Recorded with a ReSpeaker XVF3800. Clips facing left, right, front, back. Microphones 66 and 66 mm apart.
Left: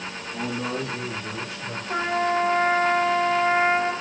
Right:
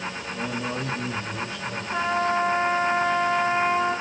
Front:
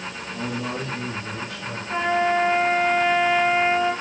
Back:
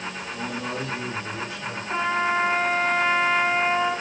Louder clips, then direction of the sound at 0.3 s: Left 2 dB, front 3 dB; 90° left.